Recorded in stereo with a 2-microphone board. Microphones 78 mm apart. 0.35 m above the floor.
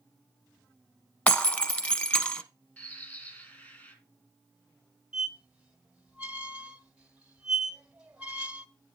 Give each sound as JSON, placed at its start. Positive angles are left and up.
{"t": 1.3, "sound": "breaking glass", "side_deg": 20, "distance_m": 0.9}
{"t": 2.8, "sound": "a bird", "side_deg": 25, "distance_m": 3.0}
{"t": 5.1, "sound": "a squeak", "side_deg": -15, "distance_m": 1.1}